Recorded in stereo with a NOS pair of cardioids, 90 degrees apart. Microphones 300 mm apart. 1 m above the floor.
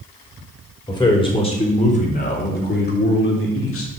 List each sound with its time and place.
0.9 s a man speaking: 15° left, 4 m; by 3.9 s 45° left, 3.5 m